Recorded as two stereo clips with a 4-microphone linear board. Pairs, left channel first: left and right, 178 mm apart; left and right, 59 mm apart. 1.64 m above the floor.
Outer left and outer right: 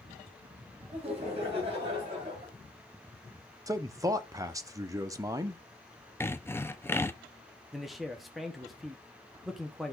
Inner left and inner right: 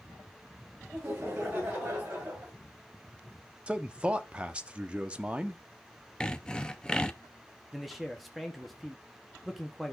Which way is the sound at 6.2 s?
15° left (ahead or behind).